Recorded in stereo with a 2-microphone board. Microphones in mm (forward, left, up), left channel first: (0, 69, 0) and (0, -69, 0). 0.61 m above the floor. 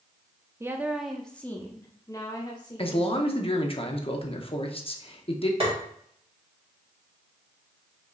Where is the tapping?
40° right (ahead or behind), 2.0 m.